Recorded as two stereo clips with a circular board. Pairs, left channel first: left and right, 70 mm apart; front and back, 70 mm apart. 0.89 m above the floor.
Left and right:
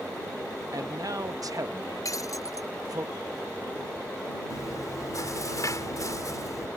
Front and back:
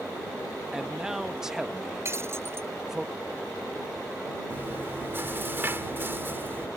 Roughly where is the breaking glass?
Behind left.